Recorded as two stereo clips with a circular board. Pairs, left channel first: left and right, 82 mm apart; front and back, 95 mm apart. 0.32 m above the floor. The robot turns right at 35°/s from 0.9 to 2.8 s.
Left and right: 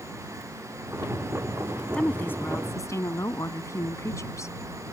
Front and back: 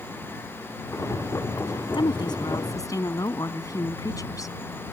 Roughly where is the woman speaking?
Ahead.